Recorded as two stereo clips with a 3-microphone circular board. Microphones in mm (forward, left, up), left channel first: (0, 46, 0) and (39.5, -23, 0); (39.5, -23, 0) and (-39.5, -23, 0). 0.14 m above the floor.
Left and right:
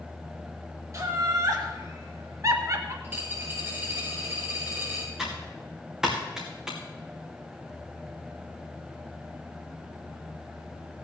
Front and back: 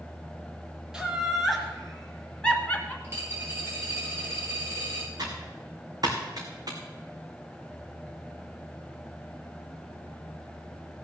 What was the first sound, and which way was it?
Laughter, 100° right.